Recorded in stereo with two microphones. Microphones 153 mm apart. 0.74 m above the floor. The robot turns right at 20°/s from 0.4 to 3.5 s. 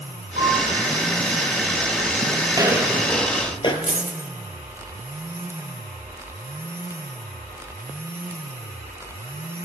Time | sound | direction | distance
0.4 | a piano | 65° right (ahead or behind) | 5.5 m
2.5 | footsteps | 30° right (ahead or behind) | 1.2 m
3.8 | a dropped coin | 50° right (ahead or behind) | 0.8 m